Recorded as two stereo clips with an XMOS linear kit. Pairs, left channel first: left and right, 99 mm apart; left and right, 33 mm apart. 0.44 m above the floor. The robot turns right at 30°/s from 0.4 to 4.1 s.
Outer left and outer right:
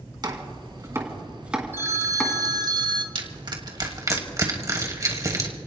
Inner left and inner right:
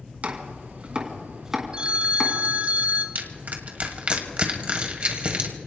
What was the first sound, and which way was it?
Chopping, 45° right (ahead or behind).